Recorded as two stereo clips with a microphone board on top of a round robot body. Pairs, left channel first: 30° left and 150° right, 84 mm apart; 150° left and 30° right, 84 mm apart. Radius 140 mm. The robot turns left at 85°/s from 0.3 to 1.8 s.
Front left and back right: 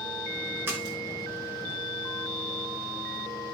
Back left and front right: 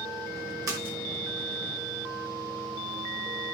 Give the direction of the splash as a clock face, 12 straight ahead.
3 o'clock.